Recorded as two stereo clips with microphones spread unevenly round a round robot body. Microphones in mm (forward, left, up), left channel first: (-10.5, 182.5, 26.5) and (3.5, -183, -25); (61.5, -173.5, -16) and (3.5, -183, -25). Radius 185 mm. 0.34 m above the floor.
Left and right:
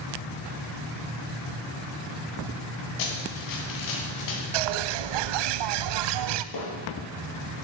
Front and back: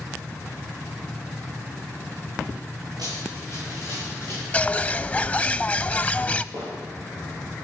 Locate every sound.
3.0 s running footsteps: 125° left, 4 m; by 4.4 s 130° left, 5 m
4.5 s a bird: 65° right, 0.6 m
6.5 s hammering: 130° left, 4.5 m